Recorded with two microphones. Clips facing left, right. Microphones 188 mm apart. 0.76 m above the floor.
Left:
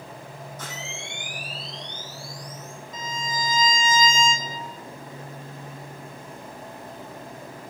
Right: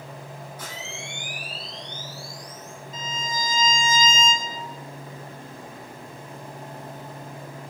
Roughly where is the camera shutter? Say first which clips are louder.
Even; centre.